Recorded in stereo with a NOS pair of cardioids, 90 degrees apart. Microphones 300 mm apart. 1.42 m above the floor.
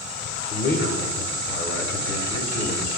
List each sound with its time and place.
0.5 s a man speaking: 35° left, 0.7 m